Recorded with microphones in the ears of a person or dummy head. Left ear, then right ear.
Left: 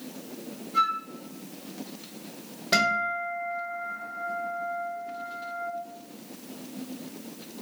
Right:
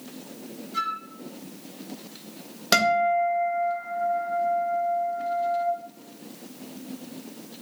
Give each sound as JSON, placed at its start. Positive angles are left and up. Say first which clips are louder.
{"t": 0.7, "sound": "a flute", "louder": "left 4 dB", "side_deg": -35, "distance_m": 1.8}
{"t": 2.7, "sound": "a guitar", "louder": "right 4 dB", "side_deg": -50, "distance_m": 1.5}